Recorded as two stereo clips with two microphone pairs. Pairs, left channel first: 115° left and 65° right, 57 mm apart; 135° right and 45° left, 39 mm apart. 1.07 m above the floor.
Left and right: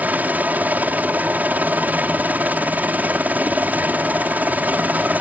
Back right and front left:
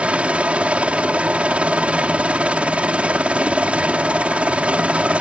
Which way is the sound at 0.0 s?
10° right.